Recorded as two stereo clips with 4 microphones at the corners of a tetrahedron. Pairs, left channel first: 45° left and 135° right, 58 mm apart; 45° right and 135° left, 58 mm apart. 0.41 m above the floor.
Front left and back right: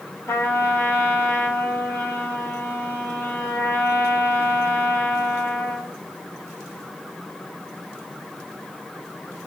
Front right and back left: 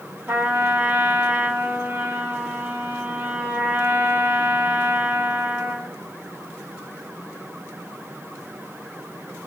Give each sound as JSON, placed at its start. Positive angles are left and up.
{"t": 0.3, "sound": "a trumpet", "azimuth_deg": 85, "distance_m": 1.8}